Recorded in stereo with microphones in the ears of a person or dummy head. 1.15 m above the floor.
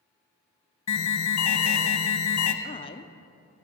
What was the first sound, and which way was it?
An alarm, 75° left (ahead or behind).